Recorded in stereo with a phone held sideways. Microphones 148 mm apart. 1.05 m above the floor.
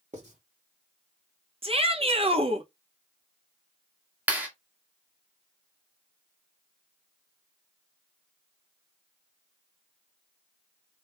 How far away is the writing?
About 2.0 m.